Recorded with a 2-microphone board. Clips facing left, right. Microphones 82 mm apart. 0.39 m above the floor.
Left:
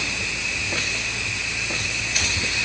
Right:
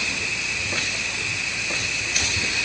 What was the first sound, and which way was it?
Only background noise.